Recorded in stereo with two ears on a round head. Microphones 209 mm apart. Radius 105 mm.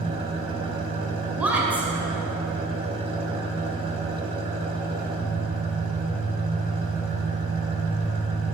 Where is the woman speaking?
5° right (ahead or behind), 2 m.